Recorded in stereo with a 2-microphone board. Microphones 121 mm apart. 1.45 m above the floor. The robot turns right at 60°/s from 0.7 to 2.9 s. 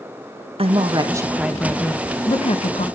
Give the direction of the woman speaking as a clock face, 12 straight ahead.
2 o'clock.